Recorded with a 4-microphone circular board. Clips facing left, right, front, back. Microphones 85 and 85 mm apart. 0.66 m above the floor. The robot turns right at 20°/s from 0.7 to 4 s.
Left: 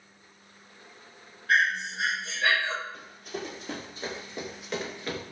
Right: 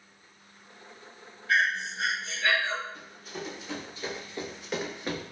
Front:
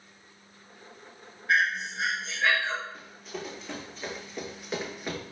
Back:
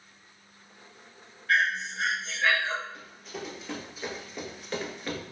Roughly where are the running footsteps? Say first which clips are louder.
Left 3 dB, front 1 dB; left.